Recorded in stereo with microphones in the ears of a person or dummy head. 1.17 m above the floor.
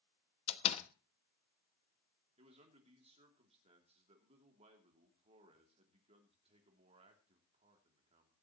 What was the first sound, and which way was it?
A door slam, 30° left (ahead or behind).